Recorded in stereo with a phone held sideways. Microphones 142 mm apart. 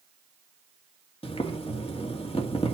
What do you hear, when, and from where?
1.2 s boiling: 40° left (ahead or behind), 1.9 m